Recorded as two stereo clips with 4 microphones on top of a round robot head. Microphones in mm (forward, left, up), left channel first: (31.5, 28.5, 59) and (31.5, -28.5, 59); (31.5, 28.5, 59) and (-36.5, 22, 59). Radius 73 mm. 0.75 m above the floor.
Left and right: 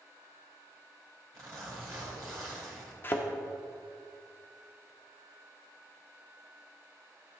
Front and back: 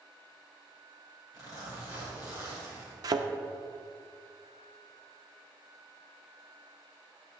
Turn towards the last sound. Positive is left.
turn(degrees=155)